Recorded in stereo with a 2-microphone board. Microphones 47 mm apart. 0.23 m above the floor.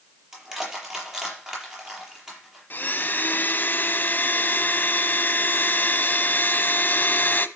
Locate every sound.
0.3 s crushing: 15° right (ahead or behind), 7 m
2.7 s a blender: 40° left (ahead or behind), 1.0 m